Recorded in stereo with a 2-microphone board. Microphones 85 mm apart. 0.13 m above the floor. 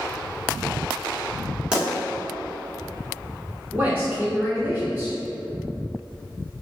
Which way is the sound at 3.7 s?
20° right (ahead or behind).